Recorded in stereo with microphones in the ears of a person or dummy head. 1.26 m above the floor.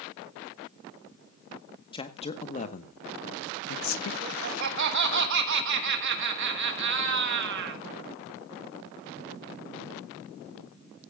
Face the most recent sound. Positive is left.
turn(degrees=-60)  # may be behind; listen again after turning